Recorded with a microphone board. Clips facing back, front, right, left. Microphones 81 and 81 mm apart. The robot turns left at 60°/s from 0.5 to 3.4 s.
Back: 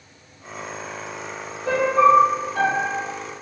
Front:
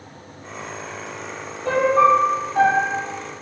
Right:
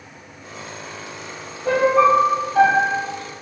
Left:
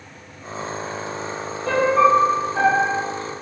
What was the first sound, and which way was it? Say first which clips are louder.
A piano: front 1 dB, right 1 dB; 15° right.